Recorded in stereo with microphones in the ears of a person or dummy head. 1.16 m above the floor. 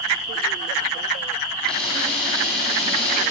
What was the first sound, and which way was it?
A camera shutter, 10° left (ahead or behind).